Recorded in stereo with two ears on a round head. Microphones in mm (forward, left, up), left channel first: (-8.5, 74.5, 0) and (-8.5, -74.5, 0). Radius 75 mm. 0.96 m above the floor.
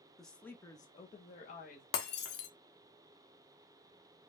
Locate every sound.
0.2 s a woman speaking: centre (ahead or behind), 1.0 m; by 1.8 s 55° left (ahead or behind), 1.2 m
1.9 s breaking glass: 75° left (ahead or behind), 1.1 m